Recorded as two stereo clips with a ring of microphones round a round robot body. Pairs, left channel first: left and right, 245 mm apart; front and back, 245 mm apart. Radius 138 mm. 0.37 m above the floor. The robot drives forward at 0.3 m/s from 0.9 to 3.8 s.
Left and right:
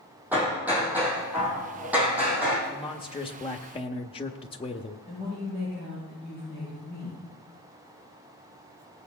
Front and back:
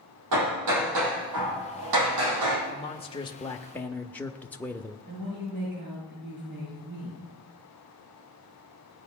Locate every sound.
0.3 s hammering: 175° right, 3.5 m
2.7 s a man speaking: 35° left, 0.9 m; by 5.0 s 75° left, 0.8 m
5.1 s a woman speaking: straight behind, 8 m